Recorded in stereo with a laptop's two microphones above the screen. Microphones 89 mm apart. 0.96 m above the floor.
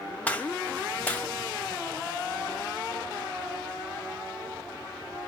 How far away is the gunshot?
About 0.7 m.